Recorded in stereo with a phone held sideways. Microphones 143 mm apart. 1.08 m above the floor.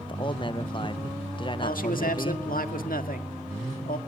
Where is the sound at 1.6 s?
80° left, 1.7 m.